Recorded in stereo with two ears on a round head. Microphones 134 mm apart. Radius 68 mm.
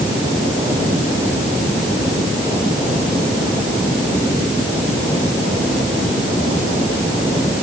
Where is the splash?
I don't hear a splash.